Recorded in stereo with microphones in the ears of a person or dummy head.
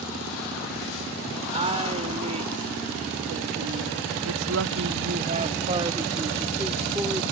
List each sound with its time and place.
1.5 s a woman speaking: 30° right (ahead or behind); by 7.2 s 5° right (ahead or behind)